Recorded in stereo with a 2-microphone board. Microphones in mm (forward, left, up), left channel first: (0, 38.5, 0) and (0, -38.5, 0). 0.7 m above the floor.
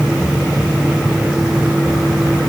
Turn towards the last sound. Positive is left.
No sound to turn to.